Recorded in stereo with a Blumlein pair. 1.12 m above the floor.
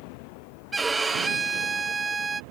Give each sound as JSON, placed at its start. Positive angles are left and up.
{"t": 0.7, "sound": "a violin", "azimuth_deg": -10}